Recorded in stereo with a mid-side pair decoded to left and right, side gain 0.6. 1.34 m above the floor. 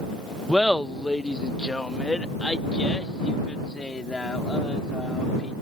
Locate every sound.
0.5 s laughter: 5° left; by 5.5 s 20° left